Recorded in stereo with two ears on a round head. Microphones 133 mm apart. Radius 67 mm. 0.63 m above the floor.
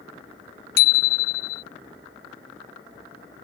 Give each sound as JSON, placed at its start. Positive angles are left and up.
{"t": 0.8, "sound": "a bicycle bell", "side_deg": 75}